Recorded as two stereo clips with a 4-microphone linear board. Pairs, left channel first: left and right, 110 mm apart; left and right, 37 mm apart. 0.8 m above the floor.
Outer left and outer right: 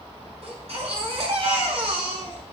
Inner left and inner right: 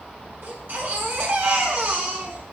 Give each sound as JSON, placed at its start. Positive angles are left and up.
{"t": 0.4, "sound": "a baby crying", "side_deg": -70, "distance_m": 7.0}